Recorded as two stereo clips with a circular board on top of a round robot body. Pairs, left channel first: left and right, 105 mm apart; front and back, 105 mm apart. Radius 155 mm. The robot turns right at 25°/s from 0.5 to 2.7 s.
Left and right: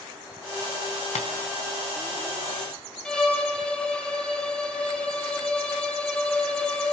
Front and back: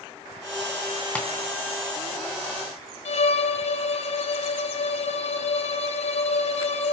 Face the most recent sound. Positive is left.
turn(degrees=5)